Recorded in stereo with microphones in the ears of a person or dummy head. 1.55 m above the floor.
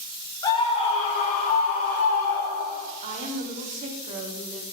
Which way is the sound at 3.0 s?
40° right (ahead or behind).